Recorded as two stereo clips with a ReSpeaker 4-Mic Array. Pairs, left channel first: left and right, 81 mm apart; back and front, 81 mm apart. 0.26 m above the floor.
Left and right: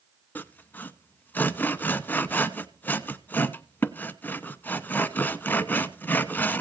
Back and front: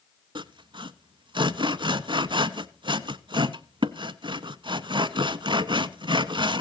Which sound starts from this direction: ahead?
Sawing, at 0.3 s.